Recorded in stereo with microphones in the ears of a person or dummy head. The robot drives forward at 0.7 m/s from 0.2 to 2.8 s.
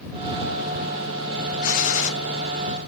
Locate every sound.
1.6 s a gunshot: 40° left (ahead or behind), 0.6 m; by 2.1 s 35° left (ahead or behind), 0.6 m